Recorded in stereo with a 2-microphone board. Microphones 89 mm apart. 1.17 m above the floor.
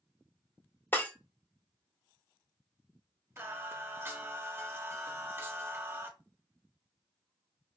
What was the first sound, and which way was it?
Breaking glass, 20° left (ahead or behind).